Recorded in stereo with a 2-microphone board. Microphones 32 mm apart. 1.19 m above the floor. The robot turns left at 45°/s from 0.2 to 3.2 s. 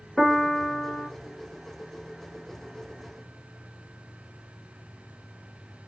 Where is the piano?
175° left, 0.6 m; by 1.1 s 135° left, 0.6 m.